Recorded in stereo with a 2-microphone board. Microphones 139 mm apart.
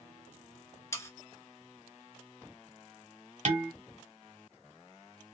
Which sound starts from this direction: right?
Dishes clattering, at 3.5 s.